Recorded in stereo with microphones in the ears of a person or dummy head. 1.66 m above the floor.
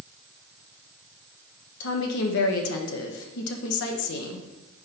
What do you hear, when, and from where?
1.8 s a woman speaking: 75° left (ahead or behind), 1.0 m